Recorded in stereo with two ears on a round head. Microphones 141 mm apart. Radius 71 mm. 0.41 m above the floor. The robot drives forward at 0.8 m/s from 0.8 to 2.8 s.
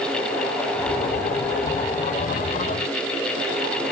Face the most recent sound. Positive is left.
No sound to turn to.